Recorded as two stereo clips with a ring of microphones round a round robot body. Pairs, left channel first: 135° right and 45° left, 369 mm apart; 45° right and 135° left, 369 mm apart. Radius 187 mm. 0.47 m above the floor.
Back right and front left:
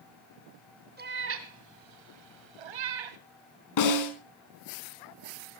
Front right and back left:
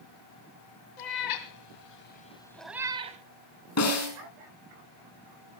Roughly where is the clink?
No clink in this recording.